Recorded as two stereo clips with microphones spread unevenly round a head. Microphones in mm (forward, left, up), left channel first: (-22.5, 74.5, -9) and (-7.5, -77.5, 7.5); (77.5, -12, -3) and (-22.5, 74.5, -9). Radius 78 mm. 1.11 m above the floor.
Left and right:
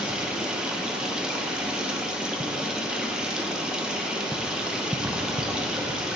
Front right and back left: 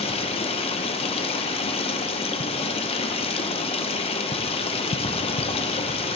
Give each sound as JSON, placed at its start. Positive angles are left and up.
{"t": 0.0, "sound": "running water", "azimuth_deg": 5, "distance_m": 0.7}